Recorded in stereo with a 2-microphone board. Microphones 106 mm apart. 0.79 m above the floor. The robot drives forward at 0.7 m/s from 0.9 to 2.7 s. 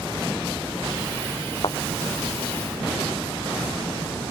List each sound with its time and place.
1.6 s a thud: 50° left (ahead or behind)